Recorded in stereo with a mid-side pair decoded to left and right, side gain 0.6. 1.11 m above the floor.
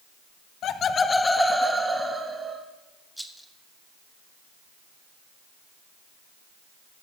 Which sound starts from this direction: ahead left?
Laughter, at 0.6 s.